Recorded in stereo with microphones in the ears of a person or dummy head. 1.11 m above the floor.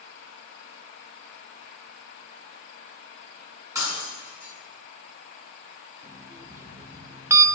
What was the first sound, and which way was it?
Breaking glass, 20° right (ahead or behind).